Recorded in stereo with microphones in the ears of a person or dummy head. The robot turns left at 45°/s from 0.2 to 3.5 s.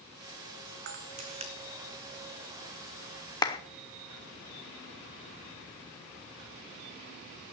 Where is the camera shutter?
50° right (ahead or behind), 2 m; by 1.5 s 20° right (ahead or behind), 2 m.